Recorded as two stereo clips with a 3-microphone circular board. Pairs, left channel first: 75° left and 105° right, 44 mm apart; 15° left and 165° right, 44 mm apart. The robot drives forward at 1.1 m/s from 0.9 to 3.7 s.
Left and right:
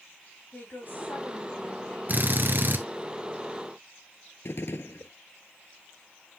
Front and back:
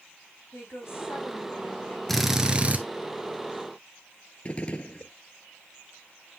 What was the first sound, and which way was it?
A woman speaking, 40° left.